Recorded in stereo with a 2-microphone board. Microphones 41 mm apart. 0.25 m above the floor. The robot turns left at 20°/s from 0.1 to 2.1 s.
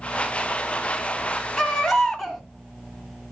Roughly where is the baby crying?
Centre.